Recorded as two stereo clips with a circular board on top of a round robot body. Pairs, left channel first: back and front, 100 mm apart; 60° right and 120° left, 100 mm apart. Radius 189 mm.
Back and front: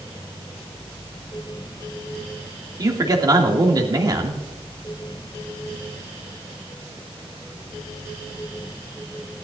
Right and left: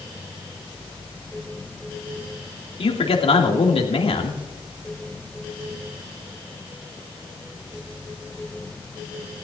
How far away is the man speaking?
About 2.5 m.